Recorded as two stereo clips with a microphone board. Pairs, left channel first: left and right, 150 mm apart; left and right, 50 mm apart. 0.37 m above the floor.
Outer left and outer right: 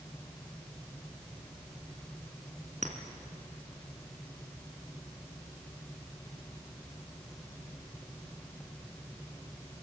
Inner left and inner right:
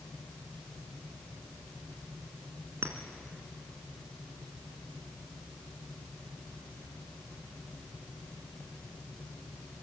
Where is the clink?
55° right (ahead or behind), 2 m.